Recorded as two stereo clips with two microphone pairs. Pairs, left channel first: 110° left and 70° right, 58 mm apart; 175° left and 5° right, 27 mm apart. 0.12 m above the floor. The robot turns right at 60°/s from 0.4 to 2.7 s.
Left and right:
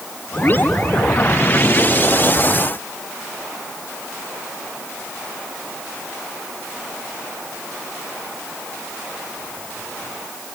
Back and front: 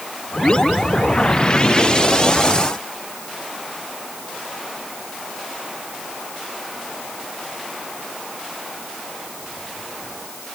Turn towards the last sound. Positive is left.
No sound to turn to.